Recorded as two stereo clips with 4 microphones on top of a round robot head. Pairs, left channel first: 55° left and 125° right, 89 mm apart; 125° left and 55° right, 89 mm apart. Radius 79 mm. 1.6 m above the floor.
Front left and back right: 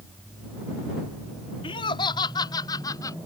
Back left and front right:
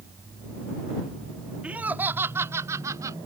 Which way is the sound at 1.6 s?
20° left.